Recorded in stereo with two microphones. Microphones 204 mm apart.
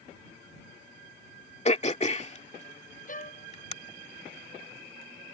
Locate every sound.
1.6 s throat clearing: 35° left (ahead or behind)
3.1 s a violin: 40° left (ahead or behind)